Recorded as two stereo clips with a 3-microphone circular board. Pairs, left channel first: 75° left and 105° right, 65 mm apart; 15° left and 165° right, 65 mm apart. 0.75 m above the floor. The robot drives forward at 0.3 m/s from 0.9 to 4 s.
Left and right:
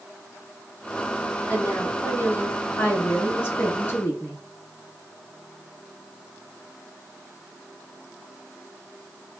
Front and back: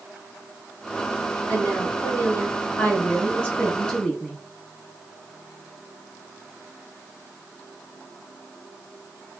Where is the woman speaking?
35° left, 1.4 m; by 4.4 s 80° left, 1.1 m.